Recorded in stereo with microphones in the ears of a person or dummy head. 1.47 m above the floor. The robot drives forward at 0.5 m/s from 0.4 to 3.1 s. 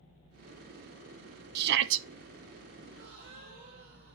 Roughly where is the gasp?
Right.